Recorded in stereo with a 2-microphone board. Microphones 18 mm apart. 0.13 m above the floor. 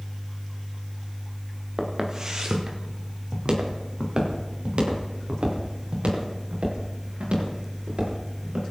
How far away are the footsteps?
About 2.5 m.